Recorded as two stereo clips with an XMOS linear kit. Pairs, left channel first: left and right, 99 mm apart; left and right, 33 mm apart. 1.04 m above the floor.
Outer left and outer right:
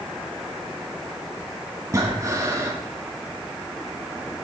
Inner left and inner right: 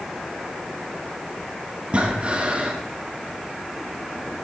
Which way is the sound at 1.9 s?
30° right (ahead or behind).